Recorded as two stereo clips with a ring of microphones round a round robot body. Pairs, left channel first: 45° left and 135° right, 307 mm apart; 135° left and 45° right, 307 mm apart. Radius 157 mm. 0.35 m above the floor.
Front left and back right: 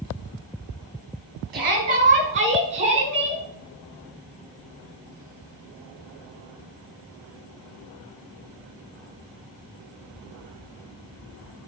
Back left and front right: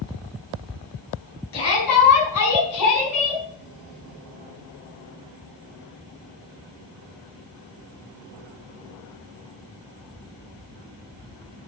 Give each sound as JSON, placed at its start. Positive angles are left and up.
{"t": 1.5, "sound": "a shout", "azimuth_deg": 165, "distance_m": 3.5}